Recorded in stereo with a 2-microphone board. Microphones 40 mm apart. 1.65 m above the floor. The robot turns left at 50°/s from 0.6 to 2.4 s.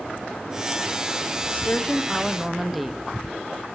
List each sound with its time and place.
1.5 s a woman speaking: 40° left, 0.6 m; by 3.0 s 5° right, 0.6 m